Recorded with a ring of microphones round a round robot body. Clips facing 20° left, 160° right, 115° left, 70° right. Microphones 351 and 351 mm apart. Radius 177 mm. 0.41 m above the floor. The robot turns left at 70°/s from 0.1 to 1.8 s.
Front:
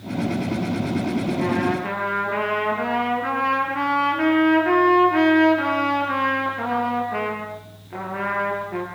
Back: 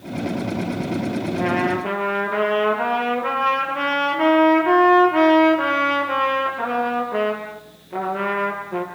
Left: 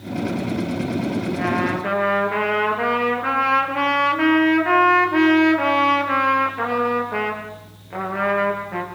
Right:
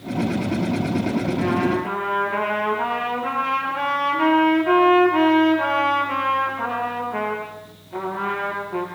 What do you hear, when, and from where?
1.4 s a trumpet: 125° left, 7 m; by 8.8 s 95° left, 7 m